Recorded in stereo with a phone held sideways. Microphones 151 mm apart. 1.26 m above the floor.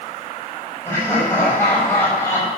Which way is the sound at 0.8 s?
15° left (ahead or behind).